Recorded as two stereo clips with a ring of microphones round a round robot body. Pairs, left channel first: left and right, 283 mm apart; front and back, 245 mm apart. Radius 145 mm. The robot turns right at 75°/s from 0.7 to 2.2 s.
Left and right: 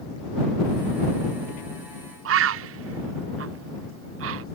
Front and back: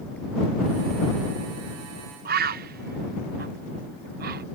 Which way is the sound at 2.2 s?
130° right.